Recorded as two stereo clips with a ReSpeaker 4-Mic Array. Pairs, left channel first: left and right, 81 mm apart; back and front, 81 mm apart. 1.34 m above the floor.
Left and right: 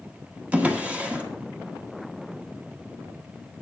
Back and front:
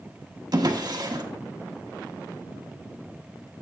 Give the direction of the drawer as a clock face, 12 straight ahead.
1 o'clock.